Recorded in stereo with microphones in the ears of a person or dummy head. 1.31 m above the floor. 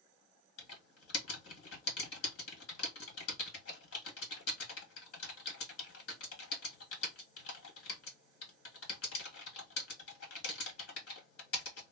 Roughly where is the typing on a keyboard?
Left.